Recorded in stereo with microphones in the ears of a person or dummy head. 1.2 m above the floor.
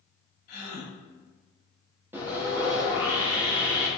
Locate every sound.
0.5 s a gasp: 55° left (ahead or behind), 1.7 m
2.1 s sawing: 10° right (ahead or behind), 0.8 m